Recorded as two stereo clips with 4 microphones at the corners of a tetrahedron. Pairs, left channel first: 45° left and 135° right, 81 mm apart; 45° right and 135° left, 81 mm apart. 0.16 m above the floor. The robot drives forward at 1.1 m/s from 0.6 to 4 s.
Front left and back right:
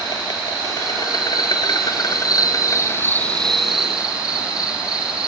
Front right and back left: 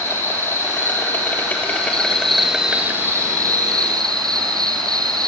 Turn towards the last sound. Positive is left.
turn(degrees=145)